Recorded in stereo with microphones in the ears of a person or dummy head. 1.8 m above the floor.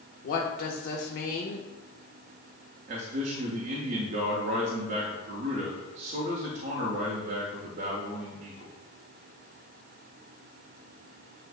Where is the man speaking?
45° right (ahead or behind), 0.5 m.